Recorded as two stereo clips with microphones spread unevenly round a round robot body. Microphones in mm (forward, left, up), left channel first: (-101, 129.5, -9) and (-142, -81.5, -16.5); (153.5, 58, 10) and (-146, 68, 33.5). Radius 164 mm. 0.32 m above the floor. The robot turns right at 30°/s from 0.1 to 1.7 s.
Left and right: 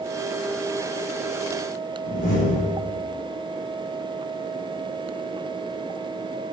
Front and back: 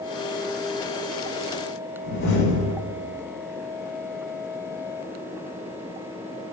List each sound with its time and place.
2.0 s a door slam: 45° left, 6.5 m